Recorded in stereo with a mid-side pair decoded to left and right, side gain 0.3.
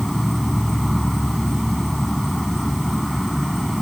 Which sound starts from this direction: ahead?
An insect, at 0.0 s.